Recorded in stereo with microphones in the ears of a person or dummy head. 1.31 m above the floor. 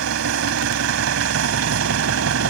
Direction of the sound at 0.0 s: 85° right.